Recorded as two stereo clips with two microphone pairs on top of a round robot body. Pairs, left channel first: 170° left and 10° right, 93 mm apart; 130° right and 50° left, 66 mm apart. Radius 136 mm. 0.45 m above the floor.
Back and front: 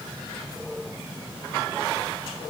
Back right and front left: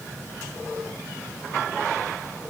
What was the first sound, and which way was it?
Only background noise.